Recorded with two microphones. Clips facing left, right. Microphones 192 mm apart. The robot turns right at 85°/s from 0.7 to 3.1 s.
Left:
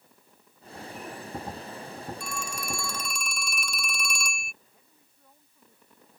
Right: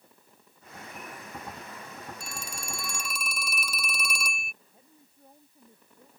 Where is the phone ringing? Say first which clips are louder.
Left 5 dB; 85° right; by 4.5 s 5° right.